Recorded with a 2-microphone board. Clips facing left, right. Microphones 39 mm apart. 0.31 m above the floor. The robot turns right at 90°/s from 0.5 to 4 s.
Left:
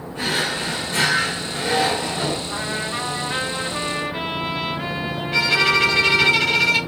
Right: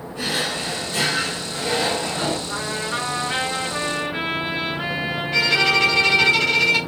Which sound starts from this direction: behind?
A trumpet, at 2.5 s.